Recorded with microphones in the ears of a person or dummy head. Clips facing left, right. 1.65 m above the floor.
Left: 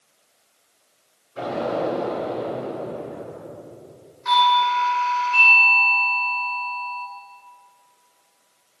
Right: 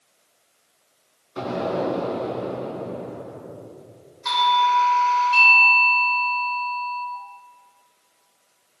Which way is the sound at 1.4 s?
65° right (ahead or behind).